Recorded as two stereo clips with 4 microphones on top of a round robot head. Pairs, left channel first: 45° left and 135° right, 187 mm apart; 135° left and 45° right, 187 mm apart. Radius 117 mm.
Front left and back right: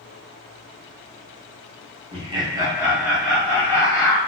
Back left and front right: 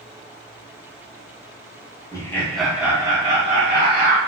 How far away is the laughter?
About 1.0 m.